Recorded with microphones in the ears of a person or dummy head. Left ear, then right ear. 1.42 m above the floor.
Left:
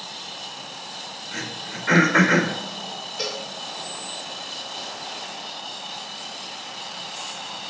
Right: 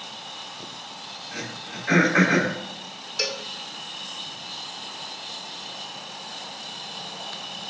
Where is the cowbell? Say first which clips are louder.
Right 3 dB; 35° right (ahead or behind), 2 m.